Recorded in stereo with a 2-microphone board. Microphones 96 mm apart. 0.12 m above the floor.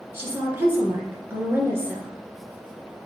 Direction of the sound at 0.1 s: 25° right (ahead or behind).